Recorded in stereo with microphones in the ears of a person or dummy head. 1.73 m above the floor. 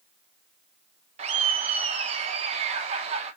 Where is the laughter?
40° right (ahead or behind), 1.2 m.